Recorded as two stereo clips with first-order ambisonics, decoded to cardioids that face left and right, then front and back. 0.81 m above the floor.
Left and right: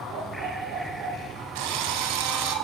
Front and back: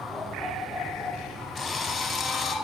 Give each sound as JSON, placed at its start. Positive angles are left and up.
{"t": 0.1, "sound": "a dog barking", "azimuth_deg": -85, "distance_m": 6.5}
{"t": 1.6, "sound": "a drill", "azimuth_deg": -75, "distance_m": 3.5}